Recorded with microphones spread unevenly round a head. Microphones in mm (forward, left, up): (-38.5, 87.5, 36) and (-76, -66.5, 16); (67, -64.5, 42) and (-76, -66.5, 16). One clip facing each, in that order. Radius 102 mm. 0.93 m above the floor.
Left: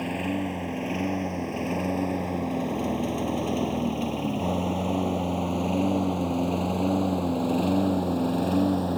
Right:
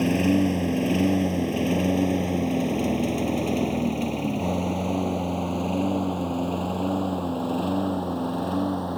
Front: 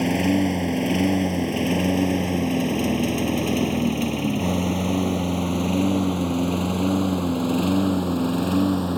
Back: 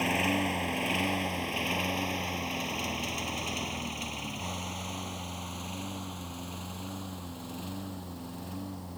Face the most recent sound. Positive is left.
turn(degrees=0)